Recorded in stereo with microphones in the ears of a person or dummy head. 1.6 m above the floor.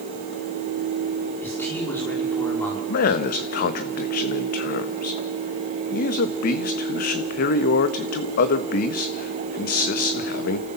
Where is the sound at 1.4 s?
15° left (ahead or behind), 5 m.